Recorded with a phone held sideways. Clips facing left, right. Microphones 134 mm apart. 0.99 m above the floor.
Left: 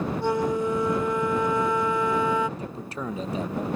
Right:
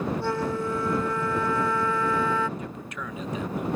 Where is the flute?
20° left (ahead or behind).